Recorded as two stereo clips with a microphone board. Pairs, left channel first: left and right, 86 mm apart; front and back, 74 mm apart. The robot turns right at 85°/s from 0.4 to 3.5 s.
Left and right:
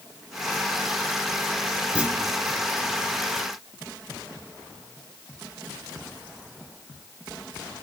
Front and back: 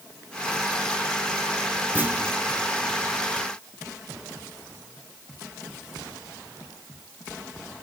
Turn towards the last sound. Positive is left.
turn(degrees=-20)